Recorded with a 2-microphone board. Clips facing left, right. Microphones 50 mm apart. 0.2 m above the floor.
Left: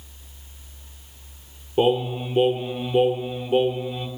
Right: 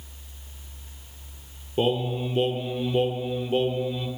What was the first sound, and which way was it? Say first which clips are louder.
Singing: left 4 dB; 20° left (ahead or behind).